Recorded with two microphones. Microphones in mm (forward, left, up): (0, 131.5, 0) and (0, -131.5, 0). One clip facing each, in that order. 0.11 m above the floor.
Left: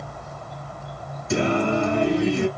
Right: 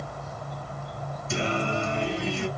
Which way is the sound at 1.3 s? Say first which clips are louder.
Left 8 dB; 60° left (ahead or behind).